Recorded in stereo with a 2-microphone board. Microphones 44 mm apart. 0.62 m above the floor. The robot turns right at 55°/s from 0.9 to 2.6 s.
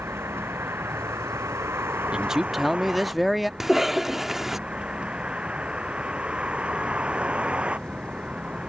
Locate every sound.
0.0 s a vehicle: 120° right; by 8.7 s 25° right
2.1 s a man speaking: 20° right (ahead or behind); by 3.5 s centre (ahead or behind)
3.6 s a cough: 10° right (ahead or behind)